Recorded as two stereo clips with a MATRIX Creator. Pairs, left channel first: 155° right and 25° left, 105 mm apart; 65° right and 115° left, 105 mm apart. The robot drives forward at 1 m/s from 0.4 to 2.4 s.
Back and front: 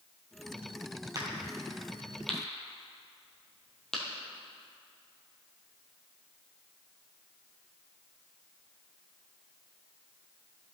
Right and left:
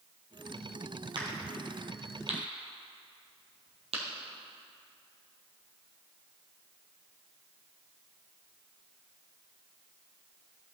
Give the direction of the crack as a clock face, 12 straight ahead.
10 o'clock.